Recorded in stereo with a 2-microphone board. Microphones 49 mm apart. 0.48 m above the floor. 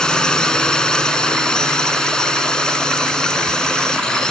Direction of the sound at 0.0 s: 15° left (ahead or behind).